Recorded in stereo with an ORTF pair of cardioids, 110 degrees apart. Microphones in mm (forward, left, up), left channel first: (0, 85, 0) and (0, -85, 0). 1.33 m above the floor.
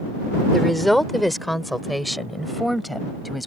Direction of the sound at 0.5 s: Straight ahead.